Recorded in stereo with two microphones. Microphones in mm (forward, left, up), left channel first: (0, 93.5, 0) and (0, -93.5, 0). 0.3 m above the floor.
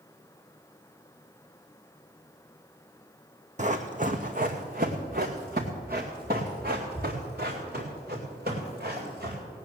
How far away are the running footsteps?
About 1.1 m.